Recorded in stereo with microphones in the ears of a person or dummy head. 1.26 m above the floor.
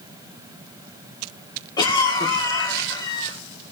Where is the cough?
20° left (ahead or behind), 2.5 m.